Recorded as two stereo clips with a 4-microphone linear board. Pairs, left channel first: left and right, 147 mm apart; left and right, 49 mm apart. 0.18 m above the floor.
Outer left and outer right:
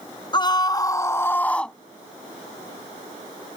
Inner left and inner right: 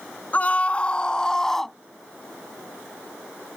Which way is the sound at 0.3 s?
35° left (ahead or behind).